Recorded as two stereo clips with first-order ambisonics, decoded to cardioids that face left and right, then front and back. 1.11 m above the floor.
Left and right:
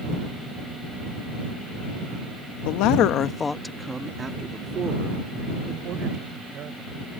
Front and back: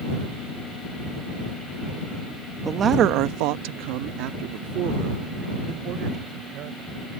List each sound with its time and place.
2.6 s a man speaking: 105° left; by 7.0 s 140° right